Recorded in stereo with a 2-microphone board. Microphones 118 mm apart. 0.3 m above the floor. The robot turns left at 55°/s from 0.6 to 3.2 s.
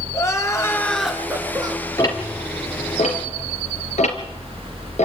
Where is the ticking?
25° left (ahead or behind), 3 m; by 5.0 s 80° left, 3 m.